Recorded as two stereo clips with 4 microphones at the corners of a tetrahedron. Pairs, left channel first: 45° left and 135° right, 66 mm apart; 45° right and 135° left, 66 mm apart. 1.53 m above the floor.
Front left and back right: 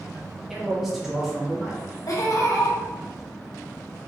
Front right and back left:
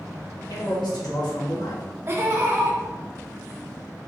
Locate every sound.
0.5 s a man speaking: 50° right, 1.5 m
2.1 s laughter: 80° left, 1.1 m